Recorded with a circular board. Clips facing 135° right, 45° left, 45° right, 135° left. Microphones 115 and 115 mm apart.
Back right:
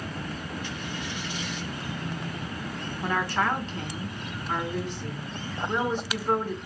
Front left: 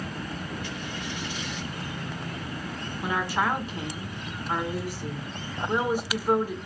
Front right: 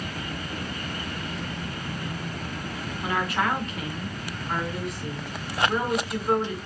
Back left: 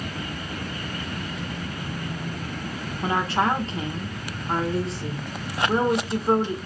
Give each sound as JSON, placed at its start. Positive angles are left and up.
{"t": 3.0, "sound": "a woman speaking", "azimuth_deg": 115, "distance_m": 0.9}